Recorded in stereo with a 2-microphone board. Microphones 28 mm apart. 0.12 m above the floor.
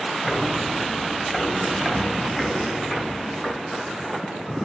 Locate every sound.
0.3 s footsteps: 30° left (ahead or behind), 1.8 m; by 4.1 s 35° left (ahead or behind), 6 m